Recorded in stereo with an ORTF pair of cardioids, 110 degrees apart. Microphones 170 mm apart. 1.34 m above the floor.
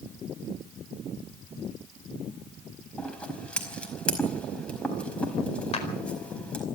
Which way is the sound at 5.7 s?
40° left.